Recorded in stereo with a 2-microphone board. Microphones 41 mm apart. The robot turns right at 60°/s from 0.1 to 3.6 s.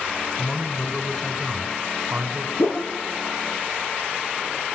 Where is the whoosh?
80° left, 2.5 m; by 2.9 s 70° left (ahead or behind), 2.5 m.